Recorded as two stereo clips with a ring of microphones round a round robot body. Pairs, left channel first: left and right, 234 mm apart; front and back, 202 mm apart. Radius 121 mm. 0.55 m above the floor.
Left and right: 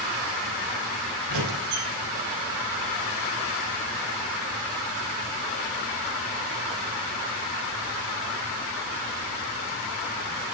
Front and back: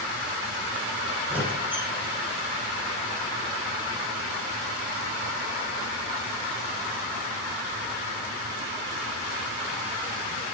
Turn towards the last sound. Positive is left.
turn(degrees=-95)